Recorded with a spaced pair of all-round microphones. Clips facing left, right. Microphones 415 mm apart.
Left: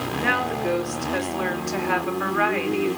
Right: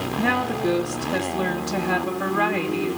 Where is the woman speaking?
50° right (ahead or behind), 2.5 m.